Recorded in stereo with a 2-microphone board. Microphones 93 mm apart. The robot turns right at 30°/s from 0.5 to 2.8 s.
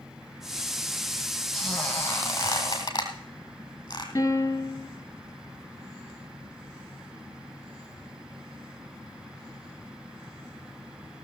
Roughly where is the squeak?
Centre.